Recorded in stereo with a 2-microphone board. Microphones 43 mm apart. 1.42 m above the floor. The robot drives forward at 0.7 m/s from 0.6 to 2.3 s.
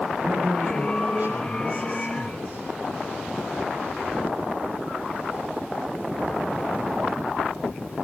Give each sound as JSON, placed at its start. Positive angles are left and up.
{"t": 0.2, "sound": "a man speaking", "side_deg": -50, "distance_m": 8.5}